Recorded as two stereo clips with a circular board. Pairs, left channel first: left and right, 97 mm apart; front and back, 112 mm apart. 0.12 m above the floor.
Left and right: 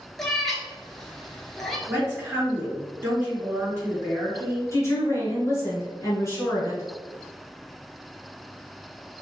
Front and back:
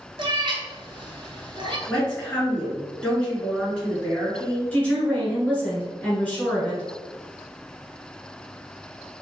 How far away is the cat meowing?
About 0.5 m.